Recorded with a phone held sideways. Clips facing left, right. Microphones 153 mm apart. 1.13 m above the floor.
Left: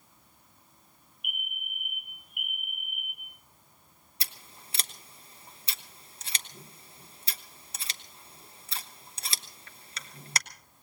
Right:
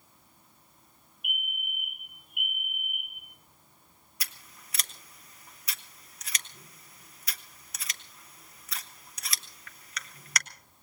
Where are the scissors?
30° left (ahead or behind), 0.9 m.